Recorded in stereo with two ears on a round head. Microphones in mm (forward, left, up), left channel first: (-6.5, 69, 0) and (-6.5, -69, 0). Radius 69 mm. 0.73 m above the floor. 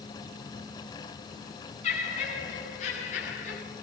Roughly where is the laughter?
Left.